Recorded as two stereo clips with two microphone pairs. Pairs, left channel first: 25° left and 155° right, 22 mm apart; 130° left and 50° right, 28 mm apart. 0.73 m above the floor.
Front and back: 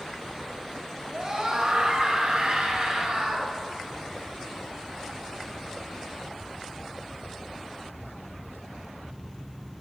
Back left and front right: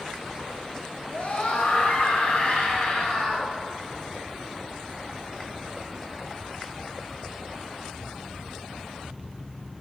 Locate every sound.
1.1 s a scream: 155° left, 4 m; by 3.5 s 175° left, 5.5 m